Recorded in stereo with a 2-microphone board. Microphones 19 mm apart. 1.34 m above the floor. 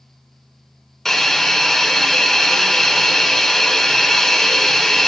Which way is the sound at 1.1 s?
20° left (ahead or behind).